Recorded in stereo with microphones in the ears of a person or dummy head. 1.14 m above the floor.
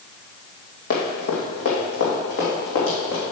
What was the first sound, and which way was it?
Running footsteps, 50° left (ahead or behind).